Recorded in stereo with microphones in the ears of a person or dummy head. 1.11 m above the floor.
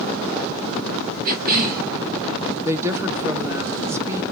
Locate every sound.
1.2 s a cough: 45° right (ahead or behind), 0.7 m
2.6 s a woman speaking: 15° right (ahead or behind), 0.6 m